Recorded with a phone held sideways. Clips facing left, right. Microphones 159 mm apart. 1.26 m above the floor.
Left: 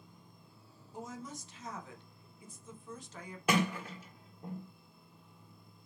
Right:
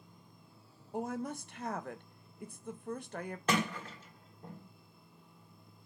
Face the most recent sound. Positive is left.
turn(degrees=10)  # may be behind; listen again after turning